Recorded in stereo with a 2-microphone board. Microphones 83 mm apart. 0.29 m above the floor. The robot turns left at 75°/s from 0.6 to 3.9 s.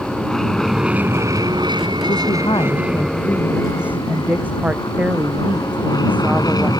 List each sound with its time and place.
0.0 s an aircraft: 5° left; by 6.8 s 120° left
2.1 s a woman speaking: 120° left; by 6.7 s 20° right